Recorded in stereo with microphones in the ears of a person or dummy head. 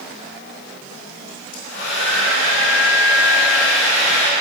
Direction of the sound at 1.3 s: 75° left (ahead or behind).